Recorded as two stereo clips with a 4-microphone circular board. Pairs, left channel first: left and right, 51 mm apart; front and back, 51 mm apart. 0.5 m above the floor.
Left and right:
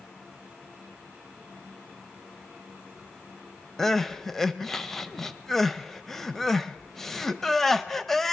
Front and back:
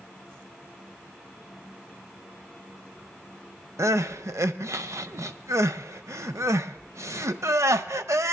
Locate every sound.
3.8 s crying: 175° left, 0.5 m